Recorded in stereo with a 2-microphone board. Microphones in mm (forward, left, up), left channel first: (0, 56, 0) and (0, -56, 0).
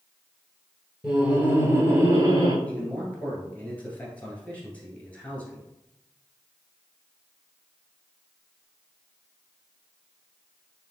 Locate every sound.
1.0 s laughter: 5° right (ahead or behind), 1.8 m; by 2.5 s 40° right (ahead or behind), 1.8 m
2.6 s a man speaking: 15° left (ahead or behind), 1.8 m